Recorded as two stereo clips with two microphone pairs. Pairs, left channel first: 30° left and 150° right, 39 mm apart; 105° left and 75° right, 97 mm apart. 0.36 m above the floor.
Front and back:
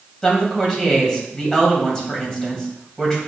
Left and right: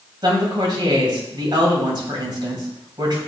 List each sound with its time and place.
0.2 s a woman speaking: 40° right, 2 m